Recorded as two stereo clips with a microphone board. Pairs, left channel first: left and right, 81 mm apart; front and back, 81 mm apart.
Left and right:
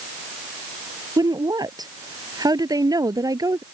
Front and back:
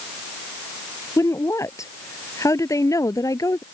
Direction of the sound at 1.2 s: 50° right.